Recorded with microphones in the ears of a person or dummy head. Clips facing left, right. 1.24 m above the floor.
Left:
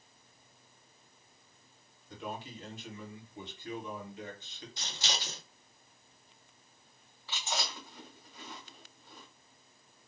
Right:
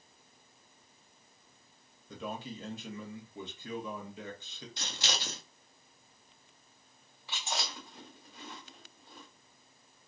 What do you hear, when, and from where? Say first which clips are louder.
2.1 s a man speaking: right 2 dB; 65° right (ahead or behind), 0.9 m
4.8 s scissors: right 1 dB; 50° right (ahead or behind), 0.7 m
7.3 s chewing: left 1 dB; 15° right (ahead or behind), 1.2 m